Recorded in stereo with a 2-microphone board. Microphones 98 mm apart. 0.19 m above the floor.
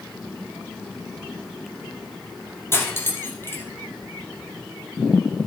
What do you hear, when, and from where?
2.7 s cutlery clinking: 25° left (ahead or behind), 3 m